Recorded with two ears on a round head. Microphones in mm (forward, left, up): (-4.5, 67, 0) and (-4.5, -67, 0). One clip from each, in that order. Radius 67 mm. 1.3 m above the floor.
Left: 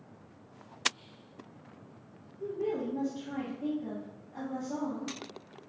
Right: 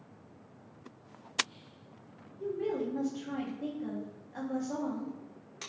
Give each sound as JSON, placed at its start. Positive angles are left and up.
{"t": 2.4, "sound": "a woman speaking", "side_deg": -50, "distance_m": 1.3}